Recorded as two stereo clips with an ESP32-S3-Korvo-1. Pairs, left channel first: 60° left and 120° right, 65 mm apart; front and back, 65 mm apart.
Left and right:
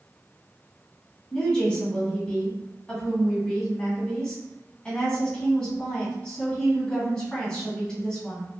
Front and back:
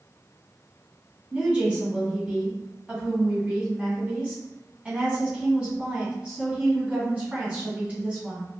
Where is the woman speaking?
125° left, 1.7 m.